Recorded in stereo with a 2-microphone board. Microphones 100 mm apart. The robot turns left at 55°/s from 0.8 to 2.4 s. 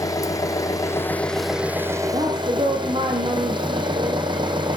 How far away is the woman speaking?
About 7 m.